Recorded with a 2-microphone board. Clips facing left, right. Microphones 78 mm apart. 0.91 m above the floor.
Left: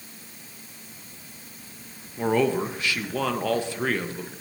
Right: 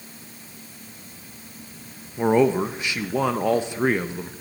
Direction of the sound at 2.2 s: 15° right (ahead or behind).